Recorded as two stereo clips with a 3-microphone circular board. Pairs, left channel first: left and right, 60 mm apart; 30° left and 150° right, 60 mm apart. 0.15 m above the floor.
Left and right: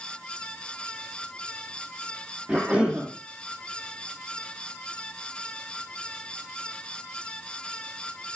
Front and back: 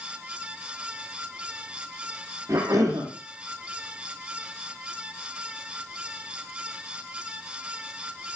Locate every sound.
2.5 s a cough: 165° right, 4.5 m